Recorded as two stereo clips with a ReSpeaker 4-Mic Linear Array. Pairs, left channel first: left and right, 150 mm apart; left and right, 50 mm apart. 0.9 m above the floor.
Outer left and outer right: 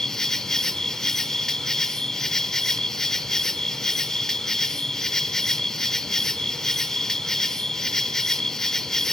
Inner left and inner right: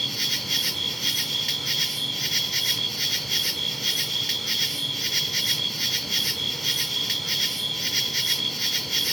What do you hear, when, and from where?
0.0 s an insect: 5° left (ahead or behind), 0.9 m